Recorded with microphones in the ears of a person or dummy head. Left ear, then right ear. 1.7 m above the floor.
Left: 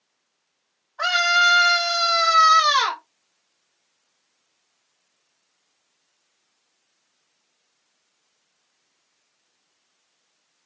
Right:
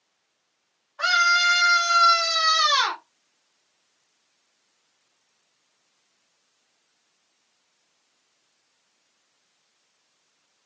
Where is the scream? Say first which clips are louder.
Left 1 dB; 20° left (ahead or behind), 0.8 m.